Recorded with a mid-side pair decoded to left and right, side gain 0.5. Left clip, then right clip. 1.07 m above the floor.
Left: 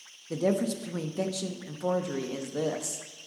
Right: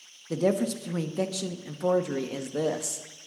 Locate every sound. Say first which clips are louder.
0.3 s a woman speaking: right 2 dB; 20° right, 1.0 m